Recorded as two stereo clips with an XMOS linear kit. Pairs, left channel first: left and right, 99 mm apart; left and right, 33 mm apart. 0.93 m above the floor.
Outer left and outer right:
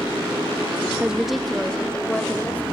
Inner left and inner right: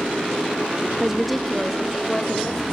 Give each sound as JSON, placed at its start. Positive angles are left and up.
{"t": 1.0, "sound": "a woman speaking", "side_deg": -10, "distance_m": 0.8}